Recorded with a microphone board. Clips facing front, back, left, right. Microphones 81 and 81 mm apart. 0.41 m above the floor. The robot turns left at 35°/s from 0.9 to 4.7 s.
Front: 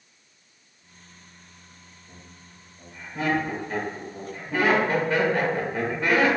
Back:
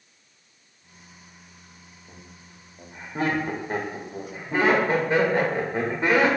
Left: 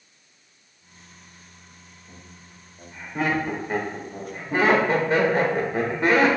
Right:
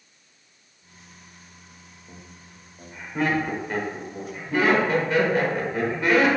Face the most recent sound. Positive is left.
turn(degrees=125)